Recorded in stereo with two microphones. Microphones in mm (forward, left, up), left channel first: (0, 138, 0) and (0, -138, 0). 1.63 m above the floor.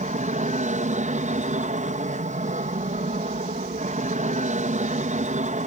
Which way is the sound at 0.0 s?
25° right (ahead or behind).